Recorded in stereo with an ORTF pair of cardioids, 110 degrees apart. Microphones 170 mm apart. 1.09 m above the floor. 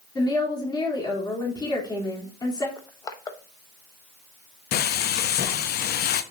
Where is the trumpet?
I don't hear a trumpet.